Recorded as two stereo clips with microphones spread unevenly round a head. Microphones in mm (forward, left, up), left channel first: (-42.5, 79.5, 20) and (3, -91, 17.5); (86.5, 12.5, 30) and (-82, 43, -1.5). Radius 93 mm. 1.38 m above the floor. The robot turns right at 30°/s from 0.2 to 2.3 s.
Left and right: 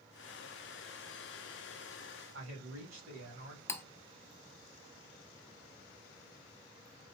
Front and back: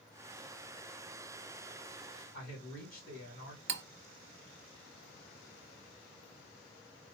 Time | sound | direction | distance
2.3 | a man speaking | 60° right | 3.5 m
3.7 | cutlery clinking | straight behind | 0.7 m